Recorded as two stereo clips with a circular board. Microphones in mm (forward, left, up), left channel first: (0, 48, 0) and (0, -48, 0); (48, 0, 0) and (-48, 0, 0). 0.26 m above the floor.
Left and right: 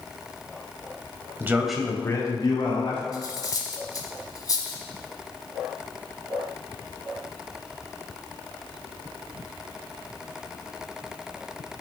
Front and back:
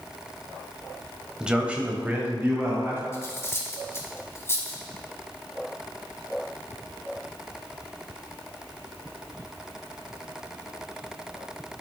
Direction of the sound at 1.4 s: 110° right.